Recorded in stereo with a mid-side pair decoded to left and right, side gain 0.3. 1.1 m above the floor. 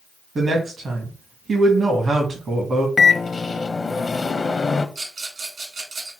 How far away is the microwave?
About 0.7 m.